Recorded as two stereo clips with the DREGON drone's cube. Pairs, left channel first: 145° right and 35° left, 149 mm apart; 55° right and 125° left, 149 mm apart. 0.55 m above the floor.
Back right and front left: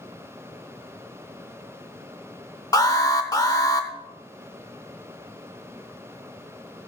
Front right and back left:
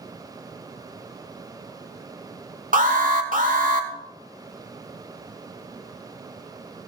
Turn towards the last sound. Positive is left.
turn(degrees=150)